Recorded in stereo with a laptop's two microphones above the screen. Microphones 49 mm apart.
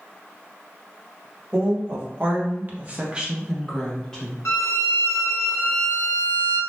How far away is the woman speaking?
About 1.2 m.